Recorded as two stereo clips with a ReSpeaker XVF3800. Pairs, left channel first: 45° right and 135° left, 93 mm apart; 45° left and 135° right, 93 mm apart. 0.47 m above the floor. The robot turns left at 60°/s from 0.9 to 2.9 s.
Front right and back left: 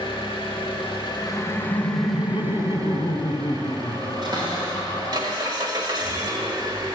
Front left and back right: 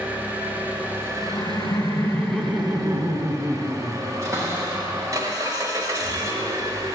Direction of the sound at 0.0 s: 65° right.